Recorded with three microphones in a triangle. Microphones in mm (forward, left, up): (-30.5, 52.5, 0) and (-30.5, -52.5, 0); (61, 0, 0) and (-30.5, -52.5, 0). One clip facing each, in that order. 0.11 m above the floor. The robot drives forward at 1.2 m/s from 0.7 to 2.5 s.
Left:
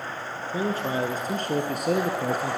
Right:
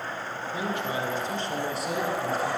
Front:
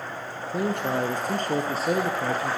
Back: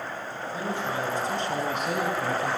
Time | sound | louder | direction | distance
0.4 | a man speaking | left 4 dB, front 4 dB | 40° left | 2.5 m